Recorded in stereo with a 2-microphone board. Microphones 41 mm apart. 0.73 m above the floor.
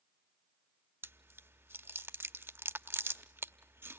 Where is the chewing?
70° right (ahead or behind), 0.8 m.